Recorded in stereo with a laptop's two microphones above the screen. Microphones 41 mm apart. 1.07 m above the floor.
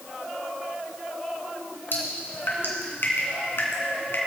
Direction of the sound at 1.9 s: 65° left (ahead or behind).